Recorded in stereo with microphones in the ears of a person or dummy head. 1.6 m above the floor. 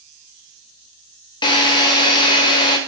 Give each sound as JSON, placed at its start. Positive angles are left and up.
{"t": 1.4, "sound": "a drill", "side_deg": 25, "distance_m": 0.6}